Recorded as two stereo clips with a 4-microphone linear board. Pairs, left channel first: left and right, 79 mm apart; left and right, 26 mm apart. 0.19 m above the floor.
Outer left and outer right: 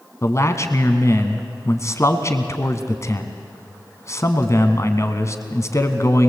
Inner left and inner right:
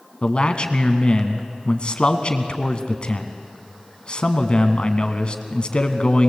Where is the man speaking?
40° left (ahead or behind), 1.6 m.